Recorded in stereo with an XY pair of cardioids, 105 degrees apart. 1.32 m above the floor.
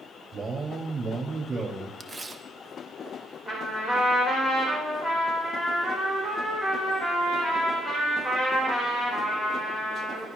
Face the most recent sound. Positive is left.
turn(degrees=25)